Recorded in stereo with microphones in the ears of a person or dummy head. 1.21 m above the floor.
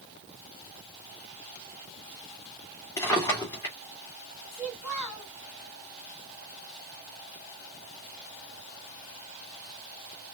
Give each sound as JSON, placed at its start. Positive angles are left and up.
{"t": 3.0, "sound": "a drawer", "side_deg": 20, "distance_m": 1.7}
{"t": 4.5, "sound": "a child speaking", "side_deg": 15, "distance_m": 2.5}